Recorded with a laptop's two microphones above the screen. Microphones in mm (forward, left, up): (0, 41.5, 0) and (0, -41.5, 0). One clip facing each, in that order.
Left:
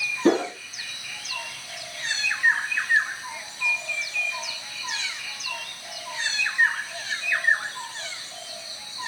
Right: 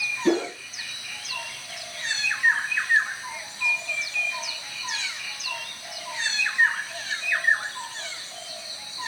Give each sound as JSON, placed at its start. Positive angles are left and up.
{"t": 0.2, "sound": "a whoosh", "side_deg": 45, "distance_m": 0.7}